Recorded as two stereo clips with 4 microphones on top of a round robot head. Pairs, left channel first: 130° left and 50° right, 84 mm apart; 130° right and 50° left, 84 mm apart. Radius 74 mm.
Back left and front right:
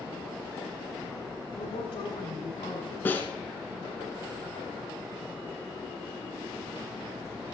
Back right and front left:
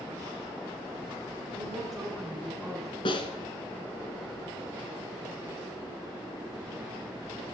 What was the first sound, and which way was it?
A woman speaking, 145° left.